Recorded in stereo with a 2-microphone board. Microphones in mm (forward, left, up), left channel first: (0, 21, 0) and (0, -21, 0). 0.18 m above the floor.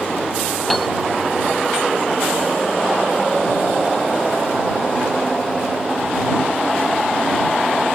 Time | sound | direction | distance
0.7 | a piano | centre (ahead or behind) | ?